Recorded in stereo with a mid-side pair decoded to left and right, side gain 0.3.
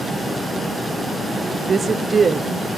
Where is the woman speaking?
50° right, 1.2 m.